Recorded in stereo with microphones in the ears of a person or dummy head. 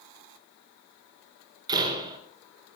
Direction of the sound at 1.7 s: 20° right (ahead or behind).